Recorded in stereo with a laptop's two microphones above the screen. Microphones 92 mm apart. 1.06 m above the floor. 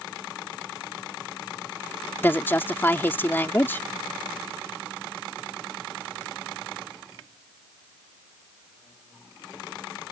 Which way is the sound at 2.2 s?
20° left (ahead or behind).